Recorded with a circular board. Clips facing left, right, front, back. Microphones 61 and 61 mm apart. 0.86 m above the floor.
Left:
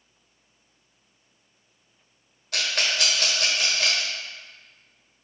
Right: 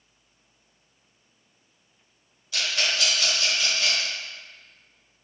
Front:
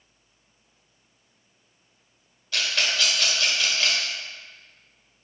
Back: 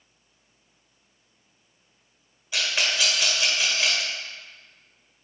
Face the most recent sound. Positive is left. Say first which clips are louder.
# left 1 dB, even
turn(degrees=105)